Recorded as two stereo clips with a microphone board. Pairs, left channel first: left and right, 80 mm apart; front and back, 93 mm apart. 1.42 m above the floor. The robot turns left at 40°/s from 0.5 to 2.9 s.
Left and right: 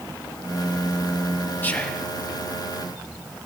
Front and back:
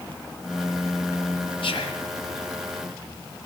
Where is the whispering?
20° left, 0.8 m; by 2.1 s 5° left, 0.8 m.